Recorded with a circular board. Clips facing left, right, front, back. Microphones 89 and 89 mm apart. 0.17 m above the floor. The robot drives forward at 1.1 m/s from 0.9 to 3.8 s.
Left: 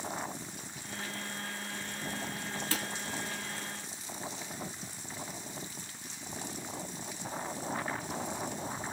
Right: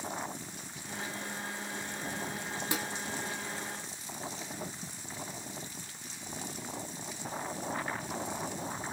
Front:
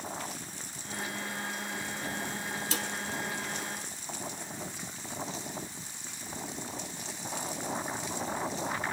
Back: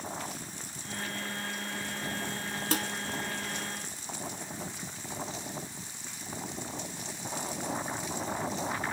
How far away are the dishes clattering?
About 1.3 m.